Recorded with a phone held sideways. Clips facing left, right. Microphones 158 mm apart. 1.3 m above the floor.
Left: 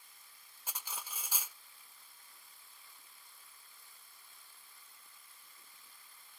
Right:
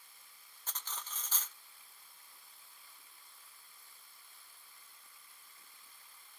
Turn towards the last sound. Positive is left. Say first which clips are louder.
# even
turn(degrees=10)  # may be behind; listen again after turning